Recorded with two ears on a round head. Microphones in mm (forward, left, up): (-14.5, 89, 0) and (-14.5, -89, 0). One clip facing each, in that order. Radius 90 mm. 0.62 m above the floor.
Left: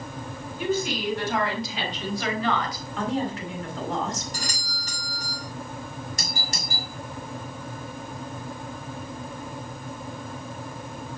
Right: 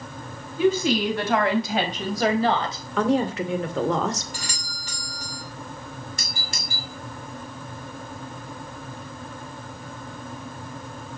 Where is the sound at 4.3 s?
40° left (ahead or behind), 7 m.